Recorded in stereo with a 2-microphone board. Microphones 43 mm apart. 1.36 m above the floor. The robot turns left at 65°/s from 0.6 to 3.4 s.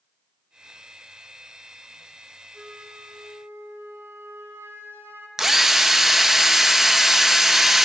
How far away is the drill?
About 1.0 m.